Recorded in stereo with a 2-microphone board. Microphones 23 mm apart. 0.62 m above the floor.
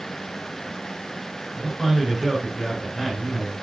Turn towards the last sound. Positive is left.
turn(degrees=5)  # may be behind; listen again after turning